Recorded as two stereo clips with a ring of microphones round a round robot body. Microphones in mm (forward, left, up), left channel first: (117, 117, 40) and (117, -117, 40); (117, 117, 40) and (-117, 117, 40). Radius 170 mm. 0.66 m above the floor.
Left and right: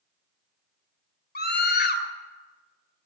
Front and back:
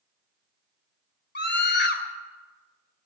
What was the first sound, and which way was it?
A scream, 45° left.